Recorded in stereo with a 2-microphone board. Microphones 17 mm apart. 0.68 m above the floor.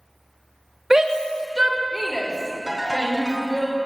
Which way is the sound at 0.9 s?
35° right (ahead or behind).